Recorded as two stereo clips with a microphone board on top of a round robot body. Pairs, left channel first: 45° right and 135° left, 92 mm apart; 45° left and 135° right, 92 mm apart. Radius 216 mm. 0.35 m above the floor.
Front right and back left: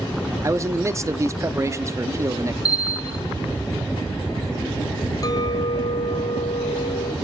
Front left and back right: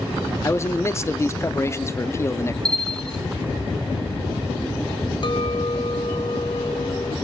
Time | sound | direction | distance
0.4 | a man speaking | 95° left | 1.1 m
2.6 | a bell | 130° left | 1.3 m
5.2 | a clink | 10° left | 2 m